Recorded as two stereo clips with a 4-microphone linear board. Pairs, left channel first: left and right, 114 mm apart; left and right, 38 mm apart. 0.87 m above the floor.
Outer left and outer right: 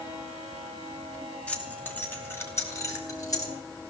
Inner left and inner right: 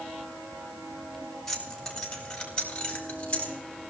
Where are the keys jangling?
10° left (ahead or behind), 2.5 m; by 3.5 s 30° left (ahead or behind), 3.5 m.